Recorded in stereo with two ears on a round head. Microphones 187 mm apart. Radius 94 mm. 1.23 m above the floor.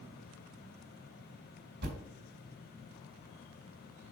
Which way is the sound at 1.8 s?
50° right (ahead or behind).